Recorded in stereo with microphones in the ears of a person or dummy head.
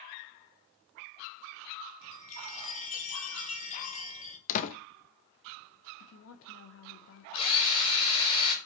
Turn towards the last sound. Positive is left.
turn(degrees=25)  # may be behind; listen again after turning